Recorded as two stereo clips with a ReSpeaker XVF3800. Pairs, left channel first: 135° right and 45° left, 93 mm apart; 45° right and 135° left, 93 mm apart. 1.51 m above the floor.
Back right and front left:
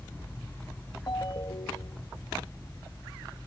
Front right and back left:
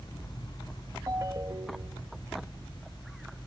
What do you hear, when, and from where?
1.1 s a ringtone: 175° right